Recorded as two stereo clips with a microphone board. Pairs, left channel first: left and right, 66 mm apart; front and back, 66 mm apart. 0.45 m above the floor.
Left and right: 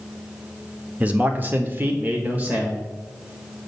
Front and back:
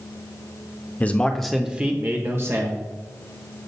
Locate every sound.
1.0 s a man speaking: 40° right, 0.8 m; by 2.8 s 150° right, 1.5 m